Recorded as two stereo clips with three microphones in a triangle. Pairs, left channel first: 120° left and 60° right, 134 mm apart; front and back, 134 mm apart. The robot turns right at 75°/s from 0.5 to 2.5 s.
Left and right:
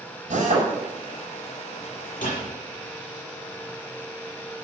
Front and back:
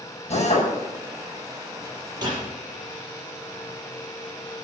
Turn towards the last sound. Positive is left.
turn(degrees=145)